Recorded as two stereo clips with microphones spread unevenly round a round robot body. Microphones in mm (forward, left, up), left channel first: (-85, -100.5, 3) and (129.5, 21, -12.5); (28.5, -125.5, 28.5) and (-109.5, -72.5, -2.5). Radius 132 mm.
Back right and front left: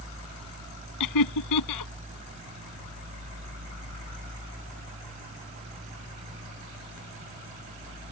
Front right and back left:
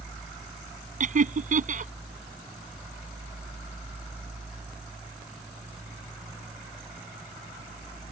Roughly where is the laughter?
Behind.